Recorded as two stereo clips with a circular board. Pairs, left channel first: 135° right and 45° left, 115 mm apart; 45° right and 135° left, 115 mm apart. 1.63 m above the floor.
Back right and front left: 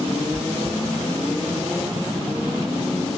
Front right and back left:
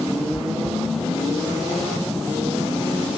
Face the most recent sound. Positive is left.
turn(degrees=55)